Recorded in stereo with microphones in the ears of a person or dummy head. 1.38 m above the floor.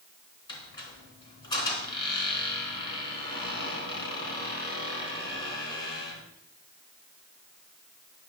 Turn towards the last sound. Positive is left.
turn(degrees=25)  # may be behind; listen again after turning